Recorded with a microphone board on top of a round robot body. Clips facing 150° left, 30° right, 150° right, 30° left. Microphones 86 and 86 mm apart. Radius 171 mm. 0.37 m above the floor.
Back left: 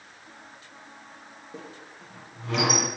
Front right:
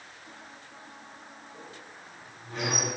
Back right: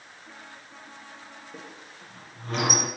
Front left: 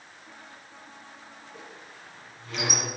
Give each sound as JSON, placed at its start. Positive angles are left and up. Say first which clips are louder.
{"t": 1.5, "sound": "a squeak", "louder": "back left 7 dB, back right 1 dB", "azimuth_deg": 160, "distance_m": 1.1}